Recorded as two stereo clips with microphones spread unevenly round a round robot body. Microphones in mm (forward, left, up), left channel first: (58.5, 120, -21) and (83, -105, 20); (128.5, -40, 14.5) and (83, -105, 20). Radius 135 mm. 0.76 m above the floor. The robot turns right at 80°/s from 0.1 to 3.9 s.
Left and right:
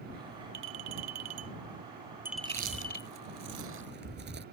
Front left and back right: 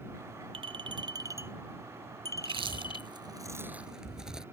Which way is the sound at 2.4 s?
165° right.